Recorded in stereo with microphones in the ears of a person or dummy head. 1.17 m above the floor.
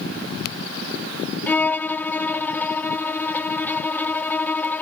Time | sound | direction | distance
1.5 | a violin | 10° left (ahead or behind) | ?